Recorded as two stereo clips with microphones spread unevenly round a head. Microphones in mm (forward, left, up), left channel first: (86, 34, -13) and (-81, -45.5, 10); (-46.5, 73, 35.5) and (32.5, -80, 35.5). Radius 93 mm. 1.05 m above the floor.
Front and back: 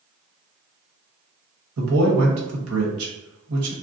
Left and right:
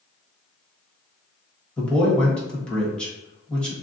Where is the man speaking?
160° right, 1.2 m.